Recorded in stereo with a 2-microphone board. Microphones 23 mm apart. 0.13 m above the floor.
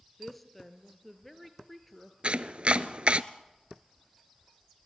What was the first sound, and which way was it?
A woman speaking, 5° left (ahead or behind).